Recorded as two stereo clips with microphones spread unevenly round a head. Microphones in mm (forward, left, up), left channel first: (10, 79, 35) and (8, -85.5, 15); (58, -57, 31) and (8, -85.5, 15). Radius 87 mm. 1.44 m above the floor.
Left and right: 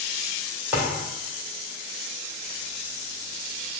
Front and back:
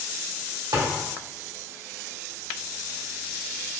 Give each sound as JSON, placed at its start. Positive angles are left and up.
{"t": 0.7, "sound": "a thud", "azimuth_deg": -175, "distance_m": 1.8}